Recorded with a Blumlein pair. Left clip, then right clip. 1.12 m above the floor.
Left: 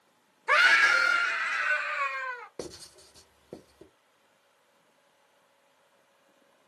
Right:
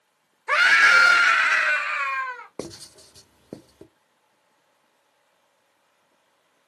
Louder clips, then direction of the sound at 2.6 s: Right 4 dB; 20° right.